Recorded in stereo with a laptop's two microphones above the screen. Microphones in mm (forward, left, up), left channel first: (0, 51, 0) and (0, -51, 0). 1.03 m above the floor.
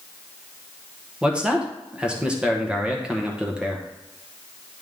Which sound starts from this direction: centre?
A man speaking, at 1.2 s.